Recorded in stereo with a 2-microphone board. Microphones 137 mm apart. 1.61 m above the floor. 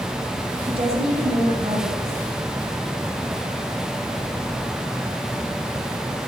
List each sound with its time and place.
0.7 s a woman speaking: 45° right (ahead or behind), 5.5 m